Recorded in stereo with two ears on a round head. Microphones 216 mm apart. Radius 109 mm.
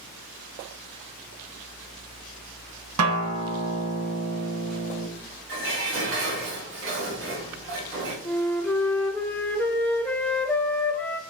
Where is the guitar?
70° right (ahead or behind), 1.1 m.